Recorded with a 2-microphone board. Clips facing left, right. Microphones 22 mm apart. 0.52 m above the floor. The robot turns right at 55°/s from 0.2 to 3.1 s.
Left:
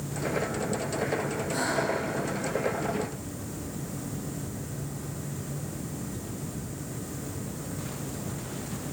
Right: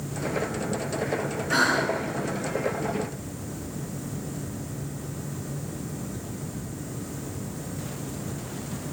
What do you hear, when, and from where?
1.5 s breathing: 65° right (ahead or behind), 1.4 m; by 2.0 s 35° right (ahead or behind), 1.4 m